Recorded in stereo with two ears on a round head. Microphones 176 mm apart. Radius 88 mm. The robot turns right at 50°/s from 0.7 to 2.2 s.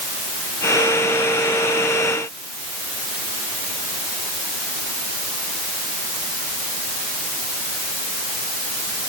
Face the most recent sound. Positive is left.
No sound to turn to.